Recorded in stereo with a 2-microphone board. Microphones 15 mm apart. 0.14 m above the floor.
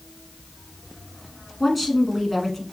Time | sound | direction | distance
1.6 | a woman speaking | 5° right (ahead or behind) | 1.1 m